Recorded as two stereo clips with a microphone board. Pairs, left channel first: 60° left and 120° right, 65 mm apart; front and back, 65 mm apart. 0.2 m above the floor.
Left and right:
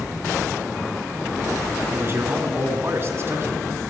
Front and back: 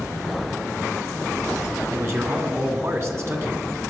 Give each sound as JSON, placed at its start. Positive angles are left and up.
{"t": 1.9, "sound": "a man speaking", "azimuth_deg": -155, "distance_m": 2.5}